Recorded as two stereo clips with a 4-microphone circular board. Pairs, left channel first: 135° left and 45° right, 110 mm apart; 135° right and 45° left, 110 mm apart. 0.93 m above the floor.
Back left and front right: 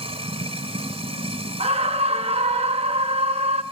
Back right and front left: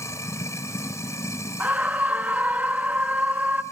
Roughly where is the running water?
Right.